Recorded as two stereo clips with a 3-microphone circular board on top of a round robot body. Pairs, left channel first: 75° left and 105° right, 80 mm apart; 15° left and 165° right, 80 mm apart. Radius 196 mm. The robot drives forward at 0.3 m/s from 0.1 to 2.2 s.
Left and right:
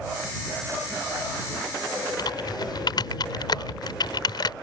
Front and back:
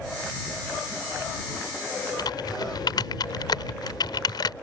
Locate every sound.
2.2 s typing on a keyboard: 45° left